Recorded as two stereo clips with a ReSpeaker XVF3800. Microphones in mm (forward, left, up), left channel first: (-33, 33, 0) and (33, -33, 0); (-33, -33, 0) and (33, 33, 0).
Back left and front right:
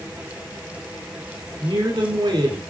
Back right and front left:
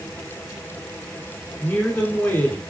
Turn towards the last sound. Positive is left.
turn(degrees=-60)